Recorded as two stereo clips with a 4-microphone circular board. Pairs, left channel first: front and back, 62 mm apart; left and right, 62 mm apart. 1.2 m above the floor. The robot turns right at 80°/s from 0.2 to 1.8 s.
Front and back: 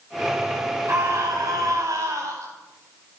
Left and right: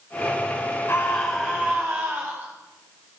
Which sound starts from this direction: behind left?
A scream, at 0.9 s.